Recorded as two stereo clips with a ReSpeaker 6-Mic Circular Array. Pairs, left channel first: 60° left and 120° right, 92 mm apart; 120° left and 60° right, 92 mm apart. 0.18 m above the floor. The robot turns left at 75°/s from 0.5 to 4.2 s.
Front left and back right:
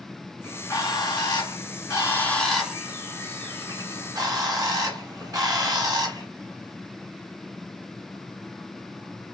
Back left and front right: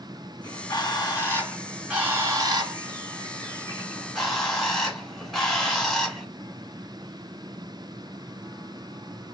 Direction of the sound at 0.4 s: 125° left.